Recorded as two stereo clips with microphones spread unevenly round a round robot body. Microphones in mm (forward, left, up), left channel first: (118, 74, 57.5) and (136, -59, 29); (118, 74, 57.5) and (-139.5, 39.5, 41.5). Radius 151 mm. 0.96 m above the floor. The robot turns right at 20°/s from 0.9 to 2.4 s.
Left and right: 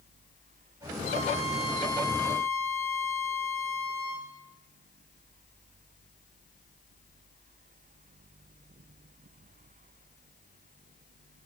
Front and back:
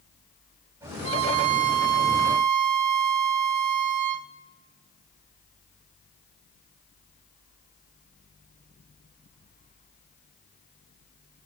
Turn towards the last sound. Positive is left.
turn(degrees=175)